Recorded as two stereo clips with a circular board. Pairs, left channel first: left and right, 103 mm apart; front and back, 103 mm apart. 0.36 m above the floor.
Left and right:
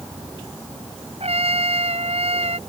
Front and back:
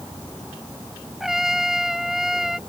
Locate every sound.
1.2 s a trumpet: 95° right